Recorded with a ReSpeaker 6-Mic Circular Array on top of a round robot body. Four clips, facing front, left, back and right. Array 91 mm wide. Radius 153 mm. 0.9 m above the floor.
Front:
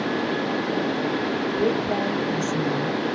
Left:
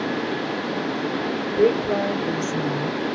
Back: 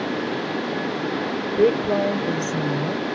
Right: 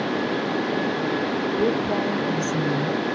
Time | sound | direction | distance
1.6 | a woman speaking | 145° left | 1.8 m